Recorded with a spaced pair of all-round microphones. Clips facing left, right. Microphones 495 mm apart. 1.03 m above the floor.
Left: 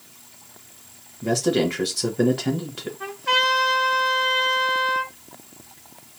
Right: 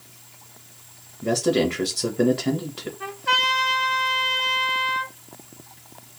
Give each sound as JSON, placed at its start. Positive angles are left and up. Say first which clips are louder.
{"t": 1.2, "sound": "a man speaking", "louder": "even", "side_deg": 5, "distance_m": 0.9}
{"t": 3.0, "sound": "a trumpet", "louder": "left 4 dB", "side_deg": 0, "distance_m": 0.9}